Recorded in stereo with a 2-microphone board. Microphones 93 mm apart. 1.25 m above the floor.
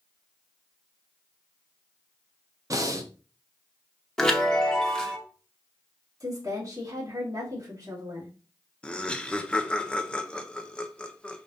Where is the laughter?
10° left (ahead or behind), 0.6 m.